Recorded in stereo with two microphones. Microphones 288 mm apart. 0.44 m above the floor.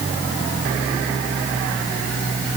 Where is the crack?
I don't hear a crack.